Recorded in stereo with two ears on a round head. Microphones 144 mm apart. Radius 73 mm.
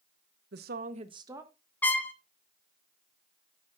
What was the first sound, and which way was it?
A woman speaking, 75° right (ahead or behind).